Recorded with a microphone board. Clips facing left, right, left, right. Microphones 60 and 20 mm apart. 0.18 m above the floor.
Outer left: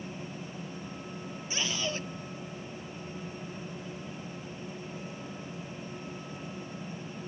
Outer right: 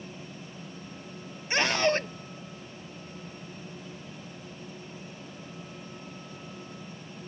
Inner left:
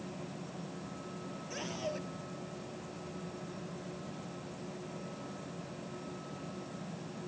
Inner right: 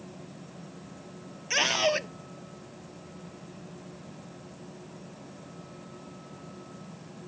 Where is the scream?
65° right (ahead or behind).